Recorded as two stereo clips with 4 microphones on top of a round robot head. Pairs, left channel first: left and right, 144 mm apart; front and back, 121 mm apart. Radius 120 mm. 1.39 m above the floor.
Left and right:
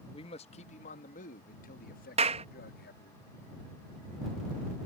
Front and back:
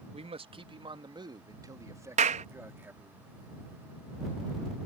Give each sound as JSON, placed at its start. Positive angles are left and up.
{"t": 0.1, "sound": "a man speaking", "azimuth_deg": 150}
{"t": 2.2, "sound": "a clap", "azimuth_deg": -145}